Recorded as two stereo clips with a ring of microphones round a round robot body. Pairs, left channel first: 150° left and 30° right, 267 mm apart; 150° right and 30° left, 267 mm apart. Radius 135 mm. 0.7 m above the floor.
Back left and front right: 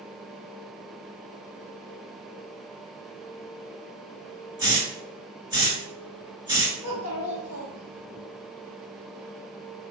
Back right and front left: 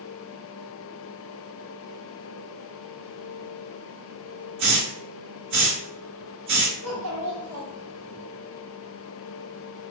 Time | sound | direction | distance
4.6 | a hiss | 45° left | 1.6 m
6.8 | a child speaking | 50° left | 1.4 m